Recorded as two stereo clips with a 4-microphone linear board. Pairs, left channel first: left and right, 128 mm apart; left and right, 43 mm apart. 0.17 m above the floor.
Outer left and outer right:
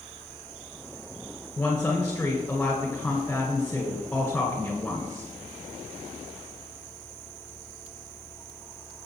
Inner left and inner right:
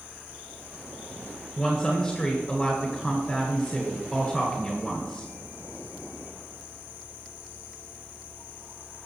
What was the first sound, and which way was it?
A woman speaking, 10° left (ahead or behind).